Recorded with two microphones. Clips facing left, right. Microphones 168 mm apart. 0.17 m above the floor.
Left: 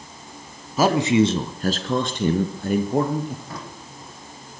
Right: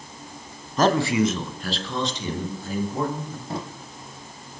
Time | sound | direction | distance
0.8 | a man speaking | 5° left (ahead or behind) | 1.4 m
3.5 | a drawer | 30° right (ahead or behind) | 2.5 m